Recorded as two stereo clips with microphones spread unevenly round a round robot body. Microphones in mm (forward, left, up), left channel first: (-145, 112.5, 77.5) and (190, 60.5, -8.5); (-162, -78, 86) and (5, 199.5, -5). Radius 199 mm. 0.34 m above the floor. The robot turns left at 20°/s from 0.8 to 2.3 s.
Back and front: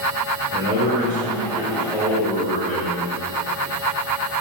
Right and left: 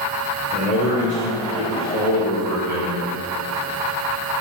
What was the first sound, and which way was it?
A man speaking, 55° right.